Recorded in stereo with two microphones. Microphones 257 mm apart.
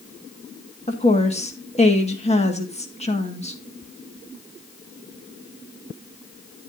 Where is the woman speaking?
25° left (ahead or behind), 1.6 m.